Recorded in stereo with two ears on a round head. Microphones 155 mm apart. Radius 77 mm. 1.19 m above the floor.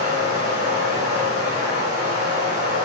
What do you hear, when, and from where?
0.0 s running water: 45° right (ahead or behind), 1.0 m